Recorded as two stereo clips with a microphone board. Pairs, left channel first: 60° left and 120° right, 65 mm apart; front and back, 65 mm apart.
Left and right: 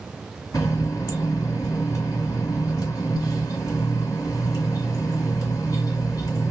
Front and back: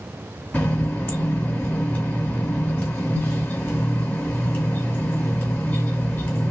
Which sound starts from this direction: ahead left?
A running tap, at 0.5 s.